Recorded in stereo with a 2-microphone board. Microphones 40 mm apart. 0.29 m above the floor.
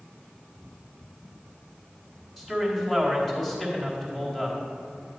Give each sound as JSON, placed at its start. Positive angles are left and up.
{"t": 2.4, "sound": "a man speaking", "side_deg": 5, "distance_m": 1.8}